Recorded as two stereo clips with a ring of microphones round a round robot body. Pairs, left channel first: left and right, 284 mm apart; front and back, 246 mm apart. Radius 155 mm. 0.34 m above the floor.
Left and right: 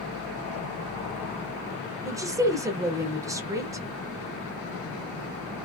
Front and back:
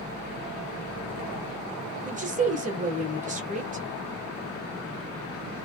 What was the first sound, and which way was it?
A woman speaking, 160° right.